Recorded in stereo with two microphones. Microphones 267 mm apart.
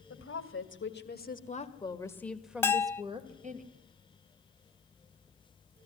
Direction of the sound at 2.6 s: 10° left (ahead or behind).